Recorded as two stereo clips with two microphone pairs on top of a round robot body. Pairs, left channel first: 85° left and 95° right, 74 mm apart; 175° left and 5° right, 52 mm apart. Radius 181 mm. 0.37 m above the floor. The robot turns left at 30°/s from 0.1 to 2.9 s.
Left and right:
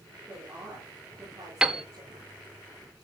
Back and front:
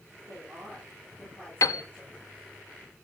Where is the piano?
175° right, 0.7 m; by 1.8 s straight behind, 0.7 m.